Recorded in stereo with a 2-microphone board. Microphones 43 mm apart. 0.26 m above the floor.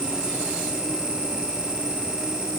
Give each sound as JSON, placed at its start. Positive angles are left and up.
{"t": 0.0, "sound": "an insect", "side_deg": -40, "distance_m": 1.5}